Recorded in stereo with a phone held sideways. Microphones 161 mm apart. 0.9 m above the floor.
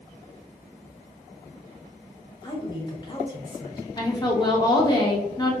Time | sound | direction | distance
2.4 | a woman speaking | 25° left (ahead or behind) | 1.1 m
4.0 | a woman speaking | 25° left (ahead or behind) | 0.9 m